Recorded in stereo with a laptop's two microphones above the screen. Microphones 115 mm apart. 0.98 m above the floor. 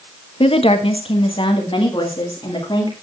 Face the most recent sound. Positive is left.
turn(degrees=40)  # may be behind; listen again after turning